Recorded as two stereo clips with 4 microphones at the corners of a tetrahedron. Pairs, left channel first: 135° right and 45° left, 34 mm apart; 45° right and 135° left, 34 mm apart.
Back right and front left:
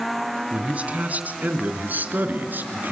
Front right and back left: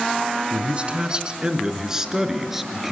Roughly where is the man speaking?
Left.